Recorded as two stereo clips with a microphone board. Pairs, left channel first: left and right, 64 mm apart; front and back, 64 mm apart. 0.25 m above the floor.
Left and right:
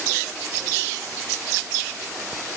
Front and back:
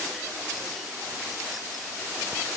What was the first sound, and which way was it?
Only background noise.